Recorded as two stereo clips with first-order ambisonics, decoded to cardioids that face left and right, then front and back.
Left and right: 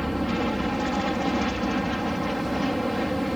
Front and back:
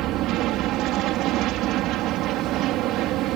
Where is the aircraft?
175° right.